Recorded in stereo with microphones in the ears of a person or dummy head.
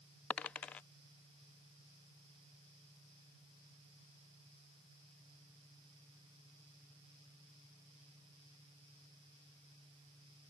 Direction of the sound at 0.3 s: 10° left (ahead or behind).